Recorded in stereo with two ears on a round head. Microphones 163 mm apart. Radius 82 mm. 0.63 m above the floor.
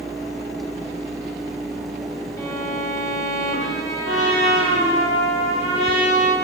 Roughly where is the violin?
Centre.